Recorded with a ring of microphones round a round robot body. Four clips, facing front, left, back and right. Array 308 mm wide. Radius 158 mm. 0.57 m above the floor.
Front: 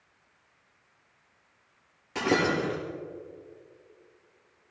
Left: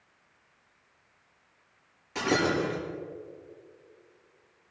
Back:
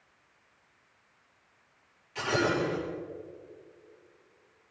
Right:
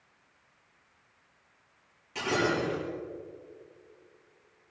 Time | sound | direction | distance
2.1 | breaking glass | 15° left | 6 m